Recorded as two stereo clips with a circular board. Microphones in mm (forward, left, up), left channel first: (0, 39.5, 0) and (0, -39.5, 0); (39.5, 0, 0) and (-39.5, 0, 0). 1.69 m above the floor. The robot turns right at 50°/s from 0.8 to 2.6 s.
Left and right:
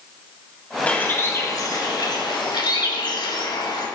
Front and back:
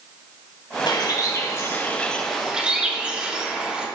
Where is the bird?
20° left, 3 m; by 3.9 s 105° left, 3 m.